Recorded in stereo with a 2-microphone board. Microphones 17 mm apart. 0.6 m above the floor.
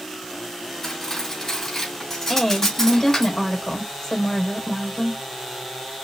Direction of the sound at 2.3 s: 40° left (ahead or behind).